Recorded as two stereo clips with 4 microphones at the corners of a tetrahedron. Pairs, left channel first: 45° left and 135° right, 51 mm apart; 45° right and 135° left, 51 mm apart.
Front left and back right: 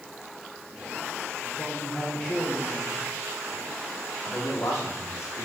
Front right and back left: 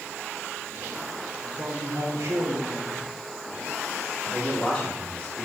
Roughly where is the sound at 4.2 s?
Ahead left.